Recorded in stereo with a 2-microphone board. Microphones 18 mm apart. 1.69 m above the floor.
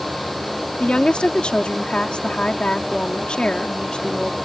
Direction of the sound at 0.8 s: 70° left (ahead or behind).